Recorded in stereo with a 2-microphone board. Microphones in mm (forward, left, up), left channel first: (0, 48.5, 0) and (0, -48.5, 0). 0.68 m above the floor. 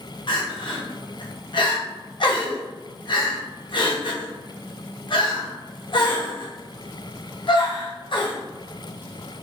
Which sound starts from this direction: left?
Crying, at 0.3 s.